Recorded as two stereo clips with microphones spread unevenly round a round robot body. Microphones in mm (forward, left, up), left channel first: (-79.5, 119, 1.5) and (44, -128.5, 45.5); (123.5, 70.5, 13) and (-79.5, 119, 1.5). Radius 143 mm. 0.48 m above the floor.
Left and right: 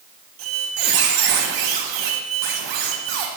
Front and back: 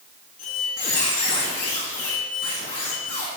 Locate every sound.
0.4 s a squeak: 75° right, 1.6 m